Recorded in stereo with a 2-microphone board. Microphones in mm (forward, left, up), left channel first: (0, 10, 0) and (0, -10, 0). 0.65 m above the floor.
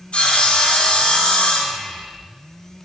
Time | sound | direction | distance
0.1 | sawing | 75° left (ahead or behind) | 3 m